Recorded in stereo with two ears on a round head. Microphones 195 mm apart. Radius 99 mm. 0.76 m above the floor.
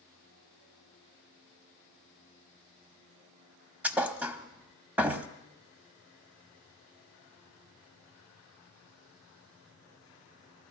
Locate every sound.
3.8 s a thud: 10° right (ahead or behind), 0.6 m